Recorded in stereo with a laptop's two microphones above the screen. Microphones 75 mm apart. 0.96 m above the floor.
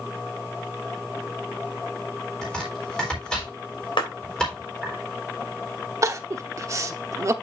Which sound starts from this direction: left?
A clap, at 4.0 s.